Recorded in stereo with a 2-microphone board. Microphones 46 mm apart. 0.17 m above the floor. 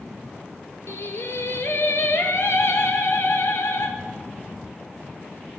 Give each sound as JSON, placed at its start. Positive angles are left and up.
{"t": 0.9, "sound": "singing", "side_deg": 70, "distance_m": 1.0}